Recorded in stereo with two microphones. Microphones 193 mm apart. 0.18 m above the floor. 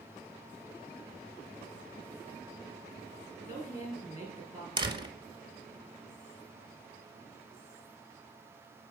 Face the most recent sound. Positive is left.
turn(degrees=-25)  # may be behind; listen again after turning